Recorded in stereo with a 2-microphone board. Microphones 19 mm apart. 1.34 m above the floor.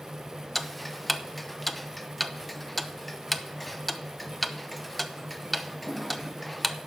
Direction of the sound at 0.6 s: 10° left (ahead or behind).